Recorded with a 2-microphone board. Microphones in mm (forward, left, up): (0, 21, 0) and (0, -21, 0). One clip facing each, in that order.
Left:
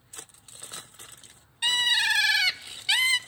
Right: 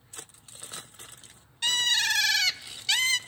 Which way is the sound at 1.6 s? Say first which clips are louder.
Left 2 dB; 15° left (ahead or behind).